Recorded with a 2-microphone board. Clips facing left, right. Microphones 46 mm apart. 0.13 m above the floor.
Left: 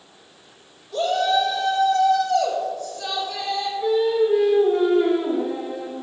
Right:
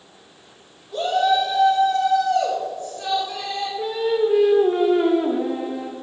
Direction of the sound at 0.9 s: 15° right (ahead or behind).